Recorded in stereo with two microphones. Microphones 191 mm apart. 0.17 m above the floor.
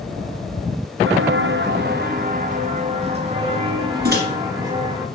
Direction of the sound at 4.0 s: 55° right (ahead or behind).